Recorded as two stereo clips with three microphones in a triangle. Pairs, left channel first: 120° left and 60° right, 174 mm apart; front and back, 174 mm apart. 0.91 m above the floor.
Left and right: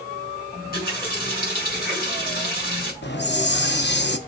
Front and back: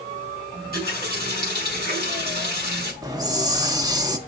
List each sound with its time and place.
0.5 s a running tap: 150° left, 5 m
3.0 s a hiss: 115° left, 0.8 m